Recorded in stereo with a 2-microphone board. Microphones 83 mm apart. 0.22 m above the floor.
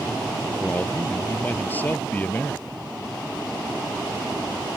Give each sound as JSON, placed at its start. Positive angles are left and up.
{"t": 0.6, "sound": "a man speaking", "side_deg": 20}